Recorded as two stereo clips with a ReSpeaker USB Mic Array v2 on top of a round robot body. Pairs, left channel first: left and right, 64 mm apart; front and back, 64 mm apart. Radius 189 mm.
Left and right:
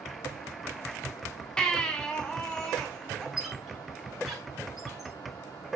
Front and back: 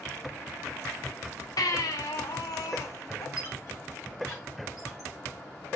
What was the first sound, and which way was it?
A baby crying, 10° left.